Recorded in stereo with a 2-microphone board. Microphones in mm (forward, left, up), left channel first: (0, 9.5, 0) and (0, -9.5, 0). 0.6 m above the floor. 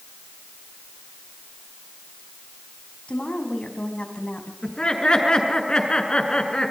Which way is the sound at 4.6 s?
45° left (ahead or behind).